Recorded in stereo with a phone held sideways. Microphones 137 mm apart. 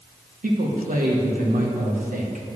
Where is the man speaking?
85° right, 1.2 m.